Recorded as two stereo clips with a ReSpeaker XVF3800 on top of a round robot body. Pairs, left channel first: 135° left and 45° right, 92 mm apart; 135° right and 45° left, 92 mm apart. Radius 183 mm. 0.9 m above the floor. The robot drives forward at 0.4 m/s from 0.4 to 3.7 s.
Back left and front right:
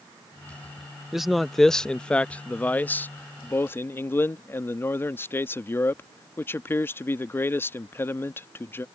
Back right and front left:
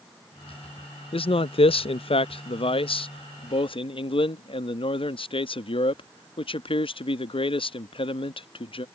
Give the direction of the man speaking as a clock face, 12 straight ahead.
4 o'clock.